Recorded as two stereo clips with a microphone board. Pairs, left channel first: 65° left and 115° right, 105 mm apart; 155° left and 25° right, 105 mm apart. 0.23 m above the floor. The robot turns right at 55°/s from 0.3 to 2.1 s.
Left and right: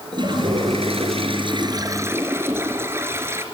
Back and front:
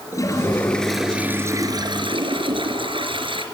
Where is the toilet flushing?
145° right, 3 m; by 3.5 s 50° right, 3 m.